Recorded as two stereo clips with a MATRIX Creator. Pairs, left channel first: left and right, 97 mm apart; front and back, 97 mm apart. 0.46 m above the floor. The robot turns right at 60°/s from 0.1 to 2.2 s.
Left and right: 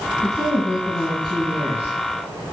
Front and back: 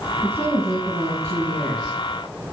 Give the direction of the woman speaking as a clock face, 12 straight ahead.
8 o'clock.